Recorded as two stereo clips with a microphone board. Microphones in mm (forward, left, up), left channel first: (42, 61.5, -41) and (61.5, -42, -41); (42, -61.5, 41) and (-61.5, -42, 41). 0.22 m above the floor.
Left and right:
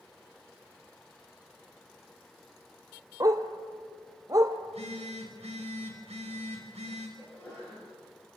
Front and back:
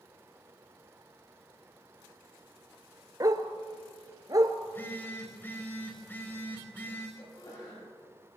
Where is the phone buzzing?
80° right, 6 m.